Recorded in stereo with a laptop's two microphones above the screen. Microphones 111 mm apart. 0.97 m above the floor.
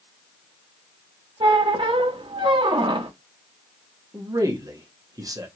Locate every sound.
1.4 s a squeak: 50° right (ahead or behind), 0.6 m
4.1 s a man speaking: 30° right (ahead or behind), 0.7 m